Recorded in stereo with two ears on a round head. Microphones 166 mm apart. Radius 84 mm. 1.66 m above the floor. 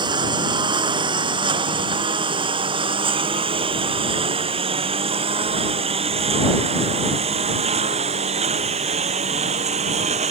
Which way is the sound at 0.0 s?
25° right (ahead or behind).